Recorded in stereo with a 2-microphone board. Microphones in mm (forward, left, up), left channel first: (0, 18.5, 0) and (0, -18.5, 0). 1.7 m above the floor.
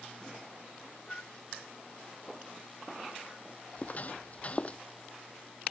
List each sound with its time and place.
1.1 s a flute: 25° left (ahead or behind)
3.8 s footsteps: 40° left (ahead or behind); by 4.8 s 30° left (ahead or behind)